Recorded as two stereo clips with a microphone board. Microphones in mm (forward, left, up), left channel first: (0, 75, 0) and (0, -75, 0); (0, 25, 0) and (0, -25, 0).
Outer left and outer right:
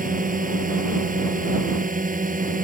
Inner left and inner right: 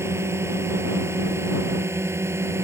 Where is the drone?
65° right (ahead or behind).